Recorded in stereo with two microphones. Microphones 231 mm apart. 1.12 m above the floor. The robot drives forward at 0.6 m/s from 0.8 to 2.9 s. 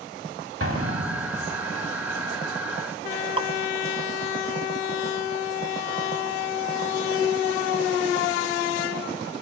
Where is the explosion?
65° right (ahead or behind), 3 m; by 1.6 s 60° right (ahead or behind), 3 m.